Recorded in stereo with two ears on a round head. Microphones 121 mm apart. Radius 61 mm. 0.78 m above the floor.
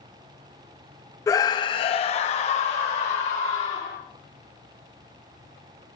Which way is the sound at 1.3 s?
20° left (ahead or behind).